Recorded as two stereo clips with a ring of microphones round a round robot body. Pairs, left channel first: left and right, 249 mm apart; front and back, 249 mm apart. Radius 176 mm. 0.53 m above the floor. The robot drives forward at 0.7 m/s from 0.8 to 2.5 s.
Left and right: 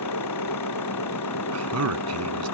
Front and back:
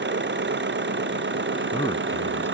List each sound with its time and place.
0.0 s an engine running: 135° left; by 2.5 s 140° left
1.5 s a man speaking: 75° right; by 2.5 s 85° right